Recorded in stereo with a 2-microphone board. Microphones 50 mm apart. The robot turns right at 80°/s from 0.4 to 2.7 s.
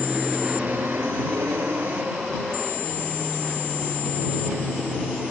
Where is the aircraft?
15° right (ahead or behind); by 5.3 s centre (ahead or behind).